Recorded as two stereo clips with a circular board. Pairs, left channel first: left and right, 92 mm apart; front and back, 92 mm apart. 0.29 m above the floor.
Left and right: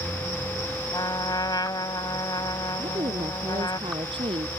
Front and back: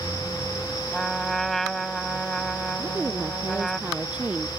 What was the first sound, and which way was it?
A trumpet, 85° left.